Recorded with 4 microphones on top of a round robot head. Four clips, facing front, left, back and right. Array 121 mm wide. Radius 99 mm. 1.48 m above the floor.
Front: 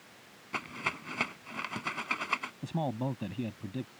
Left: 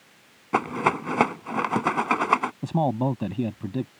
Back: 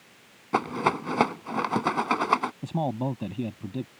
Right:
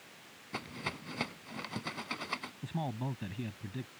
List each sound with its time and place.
0.5 s a rattle: 125° left
2.6 s a man speaking: 95° left